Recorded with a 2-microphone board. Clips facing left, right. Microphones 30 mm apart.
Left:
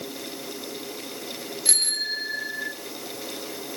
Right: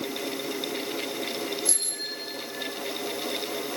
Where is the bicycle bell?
60° left (ahead or behind), 3.5 m; by 2.7 s 65° left (ahead or behind), 3 m.